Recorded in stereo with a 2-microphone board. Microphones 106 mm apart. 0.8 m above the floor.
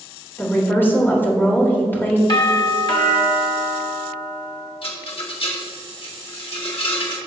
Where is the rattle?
60° left (ahead or behind), 2.0 m.